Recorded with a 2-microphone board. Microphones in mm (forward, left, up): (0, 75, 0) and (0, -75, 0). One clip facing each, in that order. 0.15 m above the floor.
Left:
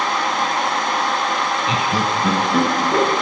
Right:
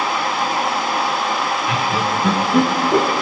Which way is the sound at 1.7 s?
25° left (ahead or behind).